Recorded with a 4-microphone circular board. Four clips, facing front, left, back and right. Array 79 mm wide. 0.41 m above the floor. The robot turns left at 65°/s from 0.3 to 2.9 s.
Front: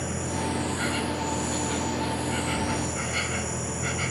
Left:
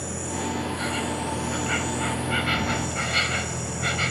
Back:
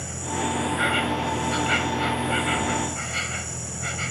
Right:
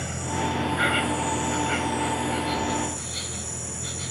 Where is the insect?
95° right; by 4.1 s 95° left.